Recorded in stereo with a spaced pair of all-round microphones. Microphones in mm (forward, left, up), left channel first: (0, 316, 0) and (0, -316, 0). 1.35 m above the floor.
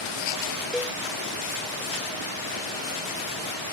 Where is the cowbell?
Centre (ahead or behind).